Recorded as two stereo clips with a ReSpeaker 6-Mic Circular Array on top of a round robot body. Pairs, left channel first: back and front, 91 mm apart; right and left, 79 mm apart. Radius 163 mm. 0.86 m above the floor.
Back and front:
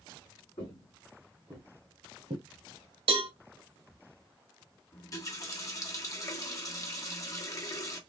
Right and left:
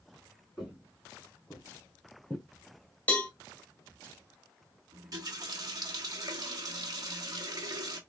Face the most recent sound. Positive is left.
turn(degrees=125)